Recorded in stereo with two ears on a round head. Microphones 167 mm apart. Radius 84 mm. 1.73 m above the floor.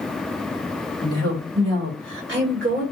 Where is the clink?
No clink in this recording.